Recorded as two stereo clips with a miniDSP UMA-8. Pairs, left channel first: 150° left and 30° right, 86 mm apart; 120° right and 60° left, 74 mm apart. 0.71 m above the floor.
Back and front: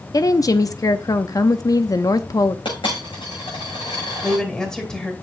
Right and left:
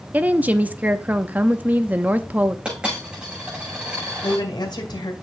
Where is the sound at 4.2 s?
130° right, 2.5 m.